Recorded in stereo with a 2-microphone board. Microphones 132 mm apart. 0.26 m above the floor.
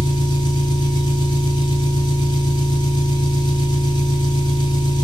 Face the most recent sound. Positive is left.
turn(degrees=35)  # may be behind; listen again after turning